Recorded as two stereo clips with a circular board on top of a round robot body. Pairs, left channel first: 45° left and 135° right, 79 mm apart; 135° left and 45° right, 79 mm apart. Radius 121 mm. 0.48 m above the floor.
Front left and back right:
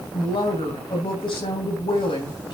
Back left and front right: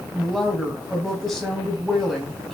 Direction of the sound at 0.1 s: 50° left.